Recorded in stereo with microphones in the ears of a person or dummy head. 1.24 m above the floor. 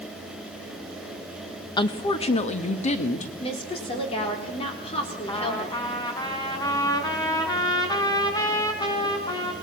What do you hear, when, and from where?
1.8 s a woman speaking: 25° left (ahead or behind), 1.2 m; by 3.3 s 40° left (ahead or behind), 2.5 m
3.4 s a woman speaking: 30° left (ahead or behind), 4 m
5.3 s a trumpet: 20° left (ahead or behind), 4 m